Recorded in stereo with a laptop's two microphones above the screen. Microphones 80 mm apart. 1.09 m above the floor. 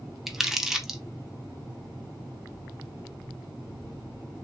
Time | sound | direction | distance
0.3 | crumpling | 5° right (ahead or behind) | 0.6 m